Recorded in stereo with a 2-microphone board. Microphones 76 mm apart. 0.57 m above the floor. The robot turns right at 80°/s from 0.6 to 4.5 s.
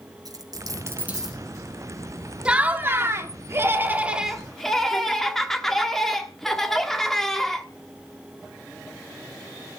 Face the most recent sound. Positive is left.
turn(degrees=5)